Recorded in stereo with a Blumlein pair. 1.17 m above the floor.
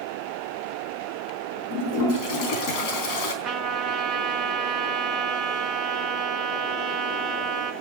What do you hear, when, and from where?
1.7 s a toilet flushing: 40° left, 3.5 m
3.4 s a trumpet: 25° right, 2 m